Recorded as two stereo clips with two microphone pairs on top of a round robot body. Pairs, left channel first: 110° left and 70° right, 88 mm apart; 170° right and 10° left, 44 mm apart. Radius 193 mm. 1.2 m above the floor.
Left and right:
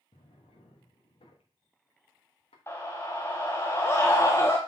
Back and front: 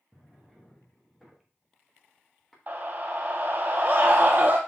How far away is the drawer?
About 1.3 m.